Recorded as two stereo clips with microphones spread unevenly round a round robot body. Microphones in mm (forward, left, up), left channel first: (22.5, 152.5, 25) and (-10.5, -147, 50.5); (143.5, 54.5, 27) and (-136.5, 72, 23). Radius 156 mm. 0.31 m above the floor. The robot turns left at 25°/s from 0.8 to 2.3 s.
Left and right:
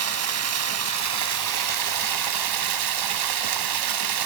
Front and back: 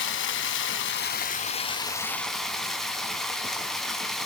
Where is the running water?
55° right, 1.6 m; by 4.3 s 95° right, 1.6 m.